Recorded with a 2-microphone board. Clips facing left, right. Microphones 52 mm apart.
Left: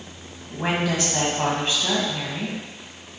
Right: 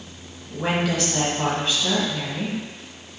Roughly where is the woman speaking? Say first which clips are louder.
Even; left.